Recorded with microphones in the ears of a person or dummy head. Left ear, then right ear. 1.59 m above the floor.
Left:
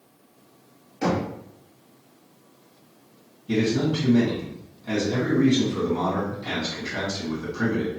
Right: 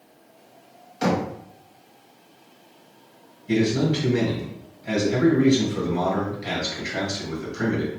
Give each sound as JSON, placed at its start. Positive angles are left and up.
{"t": 1.0, "sound": "knocking", "side_deg": -35, "distance_m": 1.1}
{"t": 3.5, "sound": "a man speaking", "side_deg": -30, "distance_m": 2.0}